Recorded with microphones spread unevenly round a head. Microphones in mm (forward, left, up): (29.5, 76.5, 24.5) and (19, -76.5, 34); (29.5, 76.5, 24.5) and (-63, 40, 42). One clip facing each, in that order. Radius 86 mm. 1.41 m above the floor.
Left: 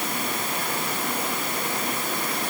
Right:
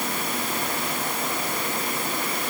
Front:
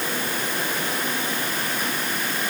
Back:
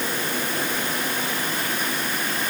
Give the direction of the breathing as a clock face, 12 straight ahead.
No breathing in this recording.